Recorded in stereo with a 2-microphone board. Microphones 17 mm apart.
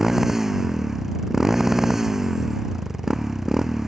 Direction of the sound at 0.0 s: 20° right (ahead or behind).